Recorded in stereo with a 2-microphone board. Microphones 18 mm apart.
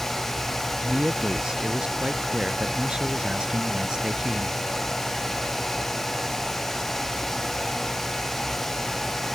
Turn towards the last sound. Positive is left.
turn(degrees=-50)  # may be behind; listen again after turning